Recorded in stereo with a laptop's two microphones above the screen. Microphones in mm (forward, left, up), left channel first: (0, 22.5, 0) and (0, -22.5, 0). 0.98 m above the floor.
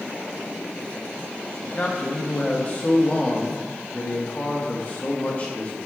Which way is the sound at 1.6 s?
30° left (ahead or behind).